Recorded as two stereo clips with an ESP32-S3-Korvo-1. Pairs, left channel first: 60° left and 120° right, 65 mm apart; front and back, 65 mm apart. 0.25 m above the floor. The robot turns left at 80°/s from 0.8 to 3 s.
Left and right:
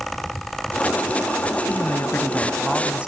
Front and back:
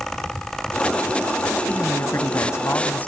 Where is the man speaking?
55° left, 1.8 m; by 3.1 s 50° right, 1.8 m.